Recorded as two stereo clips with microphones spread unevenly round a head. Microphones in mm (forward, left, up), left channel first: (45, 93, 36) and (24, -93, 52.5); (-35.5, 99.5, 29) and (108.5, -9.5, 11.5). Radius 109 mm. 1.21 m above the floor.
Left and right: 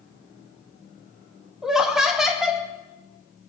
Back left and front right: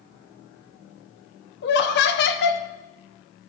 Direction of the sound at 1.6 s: 170° left.